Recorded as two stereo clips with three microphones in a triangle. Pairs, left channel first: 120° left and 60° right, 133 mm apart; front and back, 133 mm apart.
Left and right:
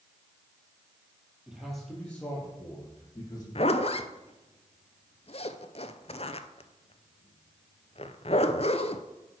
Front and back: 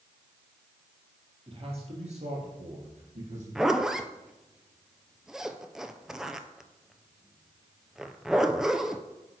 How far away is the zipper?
About 0.5 m.